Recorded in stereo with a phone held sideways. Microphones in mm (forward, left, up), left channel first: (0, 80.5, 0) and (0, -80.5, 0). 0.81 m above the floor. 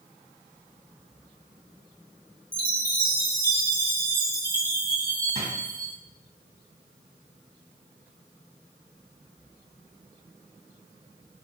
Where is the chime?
65° right (ahead or behind), 0.7 m.